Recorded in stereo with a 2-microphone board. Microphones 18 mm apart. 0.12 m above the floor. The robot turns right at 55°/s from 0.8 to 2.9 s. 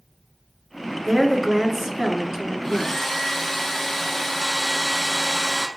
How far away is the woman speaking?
About 1.2 m.